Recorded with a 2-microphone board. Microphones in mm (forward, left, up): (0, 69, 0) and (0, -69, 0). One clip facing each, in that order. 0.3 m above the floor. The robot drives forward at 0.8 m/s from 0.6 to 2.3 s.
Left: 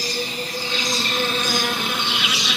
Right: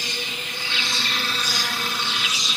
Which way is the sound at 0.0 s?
35° left (ahead or behind).